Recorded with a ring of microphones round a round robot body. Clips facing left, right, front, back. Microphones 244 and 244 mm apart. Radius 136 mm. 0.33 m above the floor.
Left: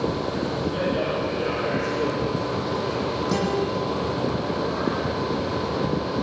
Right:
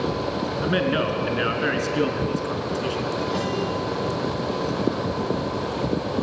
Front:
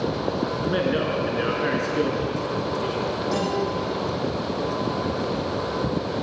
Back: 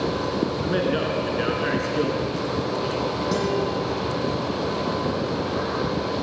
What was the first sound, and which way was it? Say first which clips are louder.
A man speaking: right 4 dB, even; 95° right.